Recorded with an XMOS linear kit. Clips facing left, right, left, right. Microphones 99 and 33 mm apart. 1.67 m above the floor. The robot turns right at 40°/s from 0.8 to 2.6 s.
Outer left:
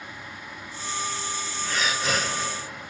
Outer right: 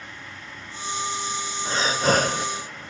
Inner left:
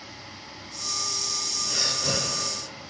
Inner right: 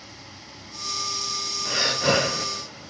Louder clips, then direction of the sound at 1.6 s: Outer right 6 dB, inner right 7 dB; 150° right.